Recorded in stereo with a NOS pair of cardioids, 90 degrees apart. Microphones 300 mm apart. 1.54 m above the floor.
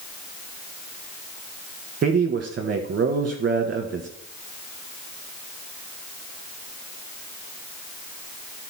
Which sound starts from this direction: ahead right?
A man speaking, at 2.0 s.